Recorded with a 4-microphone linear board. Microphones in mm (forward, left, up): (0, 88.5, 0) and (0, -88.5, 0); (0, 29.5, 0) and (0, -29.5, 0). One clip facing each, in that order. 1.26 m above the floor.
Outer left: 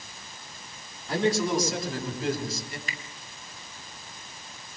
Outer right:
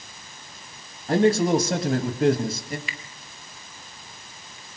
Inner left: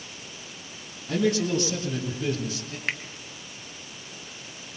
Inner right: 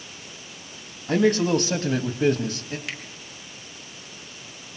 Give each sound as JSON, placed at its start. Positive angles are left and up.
{"t": 1.1, "sound": "a man speaking", "side_deg": -60, "distance_m": 2.5}
{"t": 2.9, "sound": "a finger snap", "side_deg": 45, "distance_m": 1.0}